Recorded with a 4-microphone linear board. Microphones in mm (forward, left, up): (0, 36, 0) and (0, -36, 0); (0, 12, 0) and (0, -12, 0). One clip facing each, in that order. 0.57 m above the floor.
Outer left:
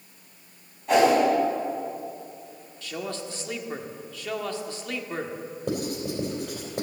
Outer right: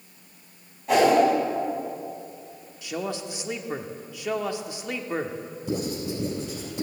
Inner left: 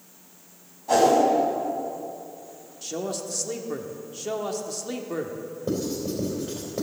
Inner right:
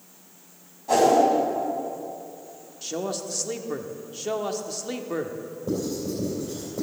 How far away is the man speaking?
About 1.0 m.